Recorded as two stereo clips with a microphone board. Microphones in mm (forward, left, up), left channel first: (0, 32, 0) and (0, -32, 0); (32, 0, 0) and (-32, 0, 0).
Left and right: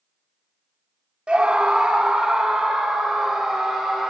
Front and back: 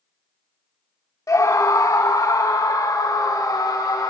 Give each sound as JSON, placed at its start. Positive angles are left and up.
{"t": 1.3, "sound": "a scream", "azimuth_deg": -20, "distance_m": 1.1}